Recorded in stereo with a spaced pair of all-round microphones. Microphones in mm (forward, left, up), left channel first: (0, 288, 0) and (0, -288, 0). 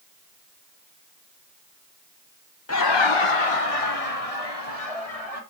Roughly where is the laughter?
Left.